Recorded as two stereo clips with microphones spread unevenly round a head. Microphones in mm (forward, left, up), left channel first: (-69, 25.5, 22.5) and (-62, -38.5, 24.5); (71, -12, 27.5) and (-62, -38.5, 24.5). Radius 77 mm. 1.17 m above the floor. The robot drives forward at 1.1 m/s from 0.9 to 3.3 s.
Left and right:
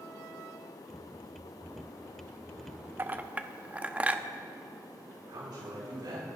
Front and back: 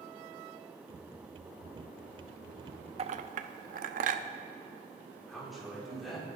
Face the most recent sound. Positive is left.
turn(degrees=-80)